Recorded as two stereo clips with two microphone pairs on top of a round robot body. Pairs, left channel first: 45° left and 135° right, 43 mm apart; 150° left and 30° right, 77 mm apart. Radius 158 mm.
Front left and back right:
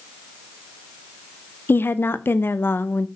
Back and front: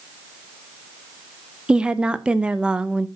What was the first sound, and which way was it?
A woman speaking, 55° left.